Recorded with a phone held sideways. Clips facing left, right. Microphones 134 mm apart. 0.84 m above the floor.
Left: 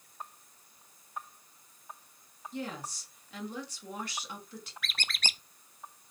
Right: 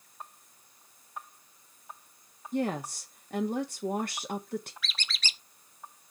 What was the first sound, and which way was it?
A woman speaking, 50° right (ahead or behind).